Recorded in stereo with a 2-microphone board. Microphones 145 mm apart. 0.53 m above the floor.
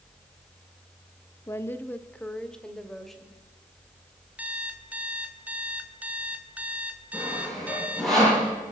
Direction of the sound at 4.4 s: 10° right (ahead or behind).